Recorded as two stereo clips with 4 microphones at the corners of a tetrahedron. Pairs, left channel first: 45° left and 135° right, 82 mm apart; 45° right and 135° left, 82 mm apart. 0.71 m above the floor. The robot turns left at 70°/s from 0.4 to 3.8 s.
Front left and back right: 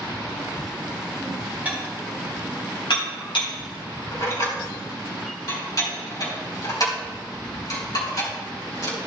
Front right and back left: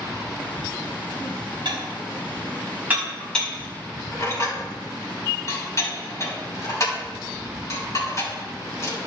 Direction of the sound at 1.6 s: 155° left.